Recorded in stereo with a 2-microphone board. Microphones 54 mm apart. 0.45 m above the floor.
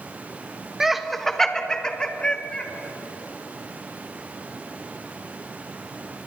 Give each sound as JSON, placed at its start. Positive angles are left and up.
{"t": 0.8, "sound": "laughter", "side_deg": -10, "distance_m": 0.7}